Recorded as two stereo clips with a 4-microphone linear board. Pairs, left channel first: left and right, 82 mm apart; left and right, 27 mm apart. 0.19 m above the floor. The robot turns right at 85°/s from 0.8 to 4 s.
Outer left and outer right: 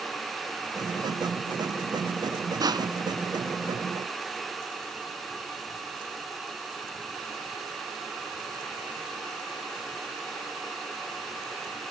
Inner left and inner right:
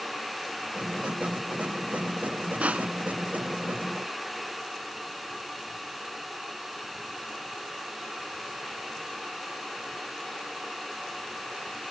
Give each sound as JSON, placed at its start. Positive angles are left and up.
{"t": 2.6, "sound": "crushing", "side_deg": -55, "distance_m": 0.8}